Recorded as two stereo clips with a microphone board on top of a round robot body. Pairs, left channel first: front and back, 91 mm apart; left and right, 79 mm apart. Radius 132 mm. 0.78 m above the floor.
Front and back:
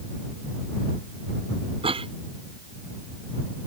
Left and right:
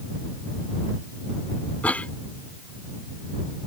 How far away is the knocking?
No knocking in this recording.